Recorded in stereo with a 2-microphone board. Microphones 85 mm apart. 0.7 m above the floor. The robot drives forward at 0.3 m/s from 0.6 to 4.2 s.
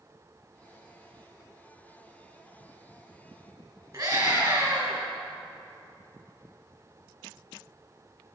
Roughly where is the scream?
Right.